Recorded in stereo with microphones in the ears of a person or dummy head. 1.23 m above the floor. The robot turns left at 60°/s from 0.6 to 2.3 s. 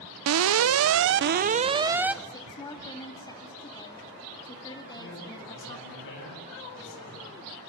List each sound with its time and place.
0.3 s an alarm: 90° right, 0.6 m; by 2.1 s straight behind, 0.6 m
2.2 s a woman speaking: 20° left (ahead or behind), 2.5 m; by 6.0 s 25° left (ahead or behind), 2.5 m
5.0 s a man speaking: 70° left (ahead or behind), 8 m